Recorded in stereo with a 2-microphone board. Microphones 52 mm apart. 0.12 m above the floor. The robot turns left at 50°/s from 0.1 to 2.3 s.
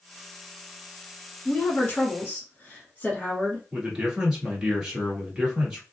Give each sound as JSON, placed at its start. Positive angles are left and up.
{"t": 1.4, "sound": "a woman speaking", "azimuth_deg": 115, "distance_m": 1.3}
{"t": 3.7, "sound": "a man speaking", "side_deg": -10, "distance_m": 1.6}